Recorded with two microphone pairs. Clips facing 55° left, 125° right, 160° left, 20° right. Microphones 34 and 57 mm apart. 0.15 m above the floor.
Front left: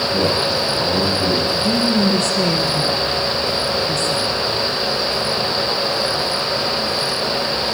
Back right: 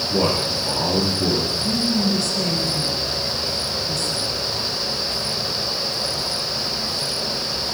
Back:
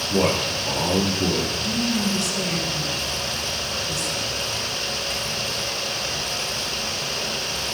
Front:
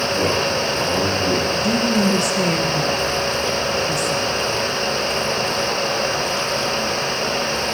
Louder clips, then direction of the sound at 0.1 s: Front left 1 dB, back 2 dB; 145° right.